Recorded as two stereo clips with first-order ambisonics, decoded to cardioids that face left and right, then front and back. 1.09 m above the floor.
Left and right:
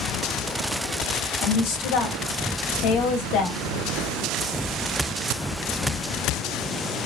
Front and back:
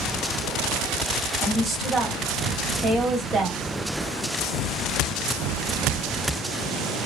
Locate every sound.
1.4 s a woman speaking: 110° left, 1.1 m